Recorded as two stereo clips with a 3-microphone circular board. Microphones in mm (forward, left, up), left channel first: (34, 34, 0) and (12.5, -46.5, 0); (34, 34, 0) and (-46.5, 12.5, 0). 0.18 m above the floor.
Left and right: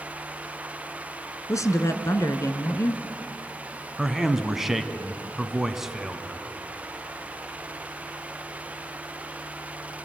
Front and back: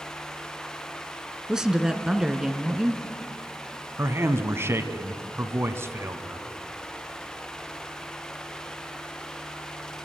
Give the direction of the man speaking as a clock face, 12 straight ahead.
6 o'clock.